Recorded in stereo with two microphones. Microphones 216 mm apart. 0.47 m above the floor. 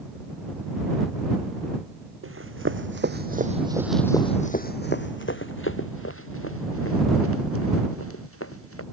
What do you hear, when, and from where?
2.2 s running footsteps: 70° right (ahead or behind); by 8.8 s 80° left